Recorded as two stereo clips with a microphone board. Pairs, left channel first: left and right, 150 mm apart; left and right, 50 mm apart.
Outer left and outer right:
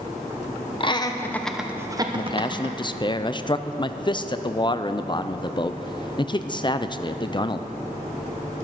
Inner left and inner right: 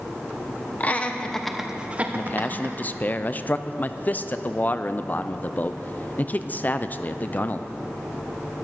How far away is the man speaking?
About 0.5 m.